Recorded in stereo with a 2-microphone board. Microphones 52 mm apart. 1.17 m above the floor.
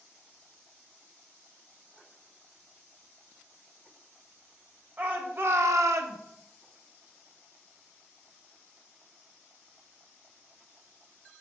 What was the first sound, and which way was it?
A shout, 30° right (ahead or behind).